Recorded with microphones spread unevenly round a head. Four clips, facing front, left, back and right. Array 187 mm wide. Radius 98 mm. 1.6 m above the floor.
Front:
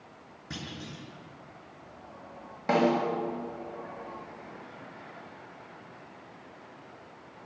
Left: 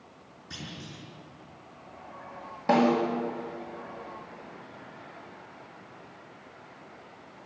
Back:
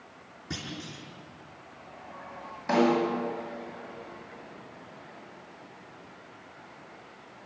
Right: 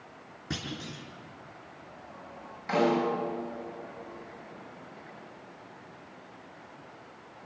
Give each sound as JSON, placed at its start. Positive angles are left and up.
{"t": 0.5, "sound": "a clunk", "azimuth_deg": -105, "distance_m": 5.0}
{"t": 2.7, "sound": "a snare drum", "azimuth_deg": 55, "distance_m": 6.5}